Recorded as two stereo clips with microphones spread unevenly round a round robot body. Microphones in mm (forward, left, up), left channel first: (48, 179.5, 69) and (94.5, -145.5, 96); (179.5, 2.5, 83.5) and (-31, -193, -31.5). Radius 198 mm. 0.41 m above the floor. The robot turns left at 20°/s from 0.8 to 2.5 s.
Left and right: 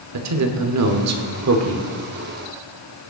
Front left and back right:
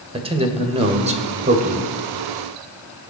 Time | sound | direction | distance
0.1 | a man speaking | 100° right | 1.5 m